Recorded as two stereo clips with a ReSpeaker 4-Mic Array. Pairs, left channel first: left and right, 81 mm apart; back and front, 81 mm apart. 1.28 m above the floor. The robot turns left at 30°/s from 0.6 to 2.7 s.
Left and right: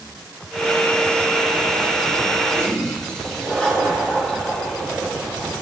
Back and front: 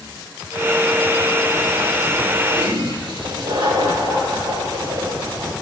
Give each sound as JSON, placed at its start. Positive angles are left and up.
{"t": 2.5, "sound": "a toilet flushing", "azimuth_deg": 15, "distance_m": 3.0}